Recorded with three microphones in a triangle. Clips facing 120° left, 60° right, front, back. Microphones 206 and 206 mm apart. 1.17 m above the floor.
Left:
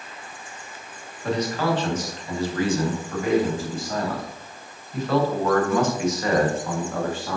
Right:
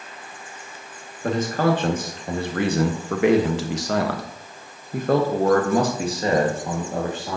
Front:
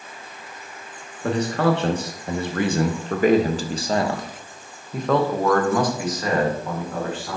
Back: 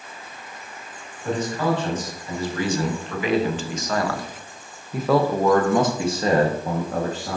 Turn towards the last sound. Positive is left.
turn(degrees=-130)